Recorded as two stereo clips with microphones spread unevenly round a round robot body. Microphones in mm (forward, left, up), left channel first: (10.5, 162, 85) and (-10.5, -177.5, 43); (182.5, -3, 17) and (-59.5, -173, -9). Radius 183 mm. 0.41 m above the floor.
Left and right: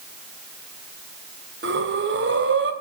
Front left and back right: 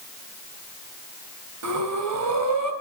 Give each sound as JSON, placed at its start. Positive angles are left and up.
{"t": 1.6, "sound": "breathing", "azimuth_deg": -140, "distance_m": 3.0}